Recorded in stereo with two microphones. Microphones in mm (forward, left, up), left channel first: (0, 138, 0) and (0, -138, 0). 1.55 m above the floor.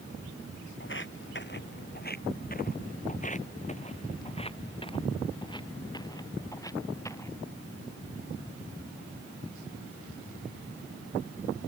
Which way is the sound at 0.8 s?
45° left (ahead or behind).